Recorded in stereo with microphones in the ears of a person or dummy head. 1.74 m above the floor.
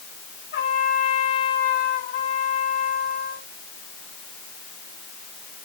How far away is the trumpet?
About 6.5 m.